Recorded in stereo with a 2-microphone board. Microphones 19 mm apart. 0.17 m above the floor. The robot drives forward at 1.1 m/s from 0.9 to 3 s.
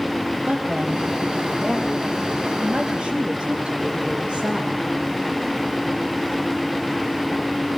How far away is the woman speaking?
About 6 m.